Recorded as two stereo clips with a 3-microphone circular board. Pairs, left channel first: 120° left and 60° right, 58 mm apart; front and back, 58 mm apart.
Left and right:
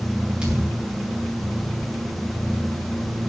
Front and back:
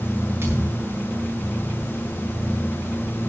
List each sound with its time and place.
0.4 s a thud: 130° right, 9 m